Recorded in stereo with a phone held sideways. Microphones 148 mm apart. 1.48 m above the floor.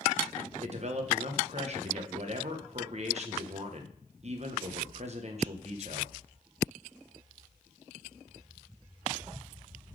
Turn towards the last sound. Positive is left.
turn(degrees=-50)  # may be behind; listen again after turning